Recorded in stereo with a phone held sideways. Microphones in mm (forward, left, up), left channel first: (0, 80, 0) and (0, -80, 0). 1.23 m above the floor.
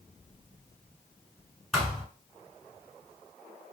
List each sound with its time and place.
1.7 s a thud: centre (ahead or behind), 1.2 m